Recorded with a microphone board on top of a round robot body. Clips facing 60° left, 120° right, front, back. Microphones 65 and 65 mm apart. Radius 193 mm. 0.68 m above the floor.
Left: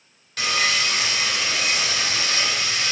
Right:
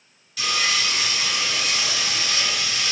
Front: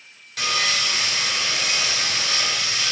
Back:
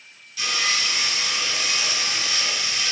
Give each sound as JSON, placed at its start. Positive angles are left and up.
{"t": 0.4, "sound": "sawing", "azimuth_deg": 30, "distance_m": 4.0}